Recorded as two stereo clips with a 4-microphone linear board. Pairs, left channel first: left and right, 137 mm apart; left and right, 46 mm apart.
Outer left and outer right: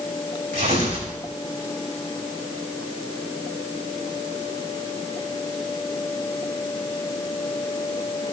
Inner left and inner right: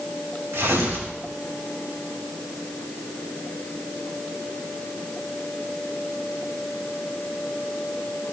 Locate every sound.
0.5 s tearing paper: 80° right, 5.5 m